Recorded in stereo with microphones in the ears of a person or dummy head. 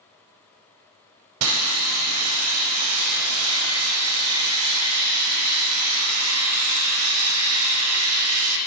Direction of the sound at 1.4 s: 85° right.